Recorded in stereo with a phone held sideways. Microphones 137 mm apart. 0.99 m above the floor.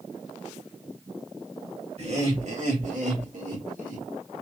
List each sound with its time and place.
2.0 s laughter: 50° right (ahead or behind), 1.9 m; by 4.1 s 75° right (ahead or behind), 2.5 m